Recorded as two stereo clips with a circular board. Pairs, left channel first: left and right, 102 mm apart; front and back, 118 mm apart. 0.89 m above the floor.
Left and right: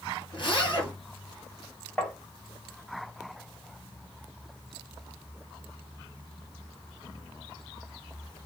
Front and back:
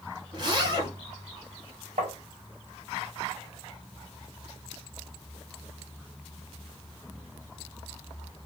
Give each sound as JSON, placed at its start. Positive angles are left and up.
{"t": 0.3, "sound": "a zipper", "azimuth_deg": 130, "distance_m": 3.5}
{"t": 2.0, "sound": "tapping", "azimuth_deg": 175, "distance_m": 2.0}